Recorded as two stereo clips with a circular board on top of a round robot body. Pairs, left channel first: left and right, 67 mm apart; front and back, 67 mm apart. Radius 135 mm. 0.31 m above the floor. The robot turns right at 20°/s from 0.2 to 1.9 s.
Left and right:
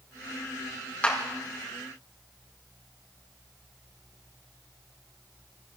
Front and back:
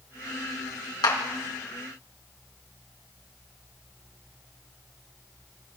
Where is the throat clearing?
I don't hear throat clearing.